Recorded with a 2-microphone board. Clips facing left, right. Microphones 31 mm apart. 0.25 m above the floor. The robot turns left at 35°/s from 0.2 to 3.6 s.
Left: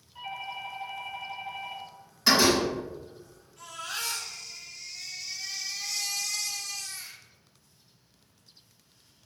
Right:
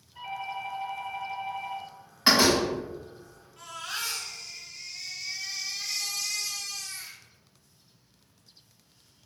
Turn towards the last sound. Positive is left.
turn(degrees=-30)  # may be behind; listen again after turning